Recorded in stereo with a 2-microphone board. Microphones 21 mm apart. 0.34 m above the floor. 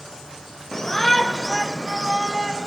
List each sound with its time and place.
0.7 s a shout: 25° left (ahead or behind), 1.0 m; by 2.7 s 35° right (ahead or behind), 1.4 m